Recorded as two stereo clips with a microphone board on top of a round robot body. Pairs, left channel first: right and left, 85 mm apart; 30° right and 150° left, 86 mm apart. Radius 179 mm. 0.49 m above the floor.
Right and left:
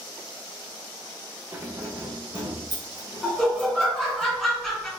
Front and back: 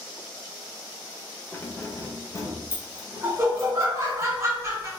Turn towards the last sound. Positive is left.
turn(degrees=-170)